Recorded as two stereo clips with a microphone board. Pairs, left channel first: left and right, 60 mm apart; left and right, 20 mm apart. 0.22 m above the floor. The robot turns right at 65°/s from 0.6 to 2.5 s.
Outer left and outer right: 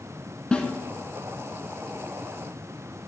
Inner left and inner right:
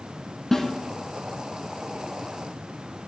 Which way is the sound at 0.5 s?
15° left (ahead or behind).